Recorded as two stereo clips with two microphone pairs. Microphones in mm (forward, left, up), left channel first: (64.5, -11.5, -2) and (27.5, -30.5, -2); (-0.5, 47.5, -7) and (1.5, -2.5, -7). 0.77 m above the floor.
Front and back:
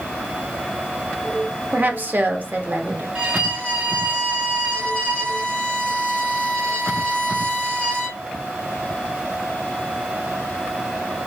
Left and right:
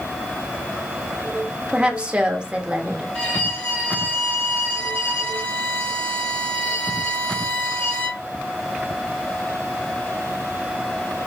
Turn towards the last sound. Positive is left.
turn(degrees=150)